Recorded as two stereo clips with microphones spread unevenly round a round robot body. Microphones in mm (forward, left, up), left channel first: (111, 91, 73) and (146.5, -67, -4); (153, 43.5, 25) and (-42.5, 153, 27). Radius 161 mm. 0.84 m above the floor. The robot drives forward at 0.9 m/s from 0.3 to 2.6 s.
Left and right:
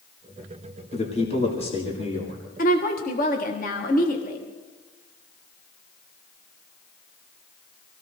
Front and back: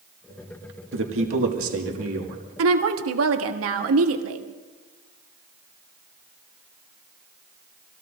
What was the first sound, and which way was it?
A man speaking, 175° left.